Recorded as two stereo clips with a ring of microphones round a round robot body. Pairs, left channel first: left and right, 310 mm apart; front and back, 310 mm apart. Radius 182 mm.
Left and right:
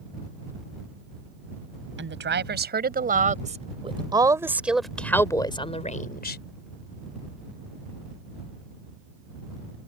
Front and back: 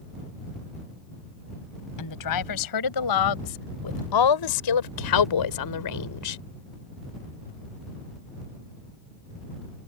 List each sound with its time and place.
2.0 s a woman speaking: 35° right; by 6.4 s 30° left